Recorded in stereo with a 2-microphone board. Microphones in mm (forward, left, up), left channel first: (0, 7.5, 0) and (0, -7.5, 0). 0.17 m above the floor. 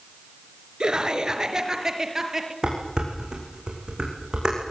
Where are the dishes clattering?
50° right (ahead or behind), 7 m.